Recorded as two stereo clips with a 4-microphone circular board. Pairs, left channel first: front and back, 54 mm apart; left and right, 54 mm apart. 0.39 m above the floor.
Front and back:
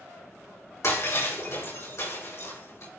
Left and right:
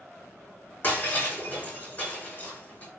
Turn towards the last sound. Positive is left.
turn(degrees=30)